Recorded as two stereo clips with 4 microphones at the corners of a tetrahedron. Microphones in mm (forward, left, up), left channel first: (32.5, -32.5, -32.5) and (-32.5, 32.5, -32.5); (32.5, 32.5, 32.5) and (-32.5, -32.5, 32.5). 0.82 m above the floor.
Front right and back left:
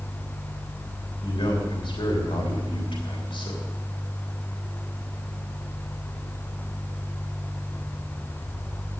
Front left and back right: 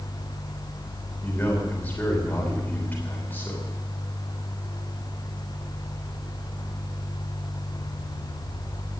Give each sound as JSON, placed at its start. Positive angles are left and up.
{"t": 1.2, "sound": "a man speaking", "azimuth_deg": -25, "distance_m": 3.0}